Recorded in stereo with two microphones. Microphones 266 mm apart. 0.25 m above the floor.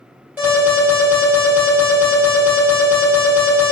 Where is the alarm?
5° right (ahead or behind), 2.0 m.